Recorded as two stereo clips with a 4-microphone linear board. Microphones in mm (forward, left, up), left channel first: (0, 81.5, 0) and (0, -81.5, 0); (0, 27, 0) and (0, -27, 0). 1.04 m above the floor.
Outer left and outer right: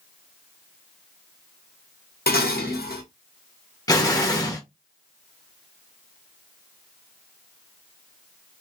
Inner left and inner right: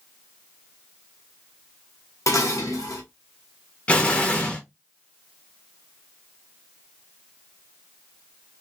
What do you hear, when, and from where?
2.3 s dishes clattering: 75° left (ahead or behind), 0.8 m
3.9 s an explosion: 20° left (ahead or behind), 0.7 m